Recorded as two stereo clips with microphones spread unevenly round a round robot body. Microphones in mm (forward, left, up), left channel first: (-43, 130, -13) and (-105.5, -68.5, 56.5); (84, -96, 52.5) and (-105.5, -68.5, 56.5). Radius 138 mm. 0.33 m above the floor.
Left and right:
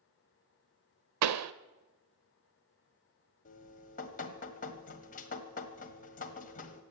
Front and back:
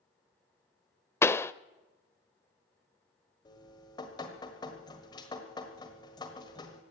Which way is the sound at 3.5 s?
60° left.